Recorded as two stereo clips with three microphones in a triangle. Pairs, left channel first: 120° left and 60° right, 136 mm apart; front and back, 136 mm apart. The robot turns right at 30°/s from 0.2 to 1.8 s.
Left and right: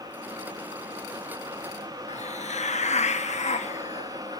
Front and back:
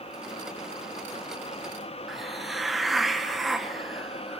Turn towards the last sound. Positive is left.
turn(degrees=90)